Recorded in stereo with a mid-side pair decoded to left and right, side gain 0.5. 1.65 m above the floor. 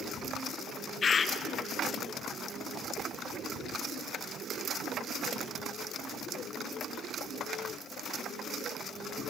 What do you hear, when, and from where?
1.0 s a bird: 40° left, 1.0 m